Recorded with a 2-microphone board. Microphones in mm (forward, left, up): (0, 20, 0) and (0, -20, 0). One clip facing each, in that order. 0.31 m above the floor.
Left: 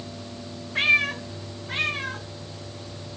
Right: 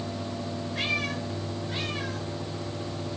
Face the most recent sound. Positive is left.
turn(degrees=65)  # may be behind; listen again after turning